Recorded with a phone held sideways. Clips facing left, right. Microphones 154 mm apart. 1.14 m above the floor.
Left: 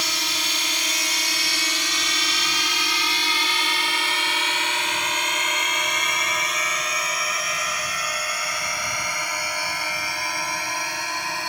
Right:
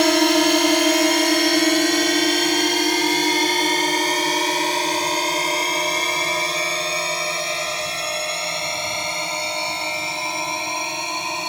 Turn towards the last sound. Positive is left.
turn(degrees=-20)  # may be behind; listen again after turning